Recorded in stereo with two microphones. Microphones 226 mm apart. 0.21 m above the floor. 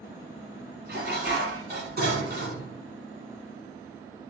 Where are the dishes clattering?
45° right (ahead or behind), 1.4 m.